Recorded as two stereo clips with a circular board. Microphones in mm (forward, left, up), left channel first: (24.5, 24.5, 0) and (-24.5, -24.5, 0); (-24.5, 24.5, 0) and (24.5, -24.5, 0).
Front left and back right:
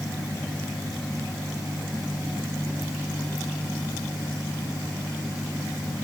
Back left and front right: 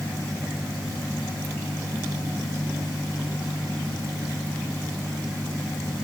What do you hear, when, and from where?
Only background noise.